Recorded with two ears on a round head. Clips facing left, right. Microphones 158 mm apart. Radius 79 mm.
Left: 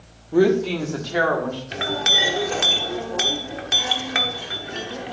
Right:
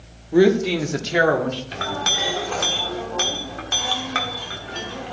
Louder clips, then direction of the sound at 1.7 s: Left 1 dB; 20° left (ahead or behind).